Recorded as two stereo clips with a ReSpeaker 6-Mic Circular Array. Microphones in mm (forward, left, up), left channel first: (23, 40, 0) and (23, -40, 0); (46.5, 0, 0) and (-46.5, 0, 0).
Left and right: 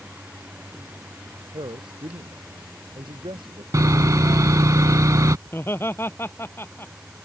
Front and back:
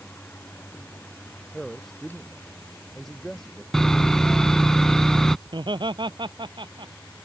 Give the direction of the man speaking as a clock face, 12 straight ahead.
3 o'clock.